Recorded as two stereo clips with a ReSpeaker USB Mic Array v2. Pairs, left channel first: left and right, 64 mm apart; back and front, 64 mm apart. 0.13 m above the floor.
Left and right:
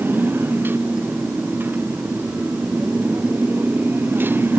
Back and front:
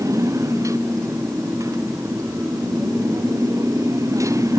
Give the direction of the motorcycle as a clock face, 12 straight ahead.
1 o'clock.